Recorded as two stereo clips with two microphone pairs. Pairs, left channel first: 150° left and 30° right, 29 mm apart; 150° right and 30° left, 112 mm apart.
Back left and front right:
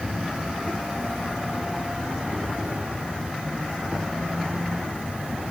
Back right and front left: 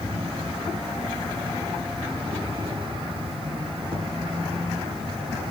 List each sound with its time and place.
0.0 s an insect: 10° right, 5.5 m